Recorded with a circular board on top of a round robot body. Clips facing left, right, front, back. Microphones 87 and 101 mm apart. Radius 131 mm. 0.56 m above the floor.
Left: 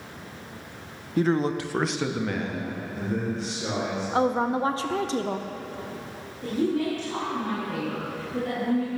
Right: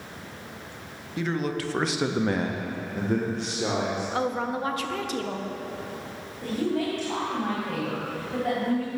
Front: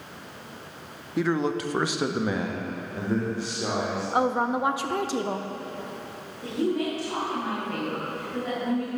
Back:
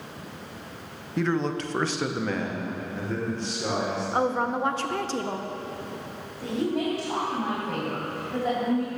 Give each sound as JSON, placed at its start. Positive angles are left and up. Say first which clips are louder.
{"t": 1.2, "sound": "a man speaking", "louder": "left 5 dB, front 1 dB", "azimuth_deg": 80, "distance_m": 0.9}
{"t": 4.1, "sound": "a woman speaking", "louder": "left 7 dB, front 2 dB", "azimuth_deg": 70, "distance_m": 0.6}
{"t": 6.4, "sound": "a woman speaking", "louder": "left 2 dB, even", "azimuth_deg": -125, "distance_m": 3.0}